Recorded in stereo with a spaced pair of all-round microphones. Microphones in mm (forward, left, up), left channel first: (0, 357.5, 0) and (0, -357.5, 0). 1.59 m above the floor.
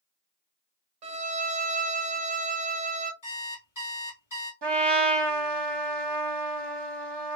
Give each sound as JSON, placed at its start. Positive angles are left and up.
{"t": 1.0, "sound": "a violin", "side_deg": -65, "distance_m": 0.7}
{"t": 3.2, "sound": "an alarm clock", "side_deg": 25, "distance_m": 2.0}
{"t": 4.6, "sound": "a trumpet", "side_deg": -35, "distance_m": 1.0}